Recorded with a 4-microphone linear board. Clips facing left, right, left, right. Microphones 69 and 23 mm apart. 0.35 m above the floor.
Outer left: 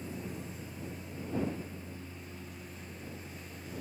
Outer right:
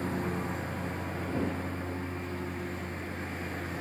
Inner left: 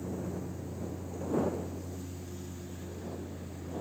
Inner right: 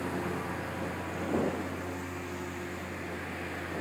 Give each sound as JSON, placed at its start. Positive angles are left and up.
{"t": 0.0, "sound": "a lawn mower", "side_deg": -75}